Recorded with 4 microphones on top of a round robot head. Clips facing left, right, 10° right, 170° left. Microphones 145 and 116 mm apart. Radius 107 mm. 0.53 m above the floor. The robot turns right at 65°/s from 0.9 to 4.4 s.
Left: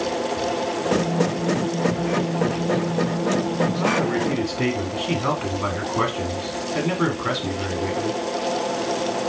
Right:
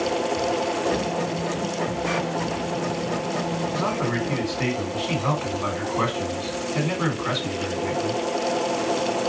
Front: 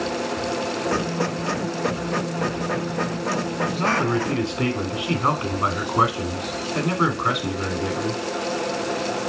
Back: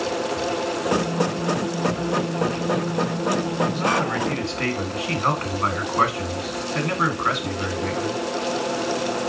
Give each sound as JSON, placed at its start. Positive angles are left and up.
{"t": 3.7, "sound": "a man speaking", "azimuth_deg": 15, "distance_m": 1.8}